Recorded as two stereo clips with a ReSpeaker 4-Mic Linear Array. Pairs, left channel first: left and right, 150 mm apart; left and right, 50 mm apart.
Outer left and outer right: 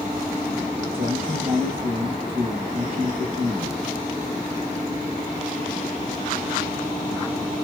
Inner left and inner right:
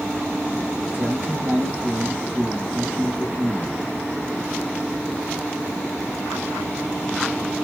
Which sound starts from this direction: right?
A man speaking, at 0.9 s.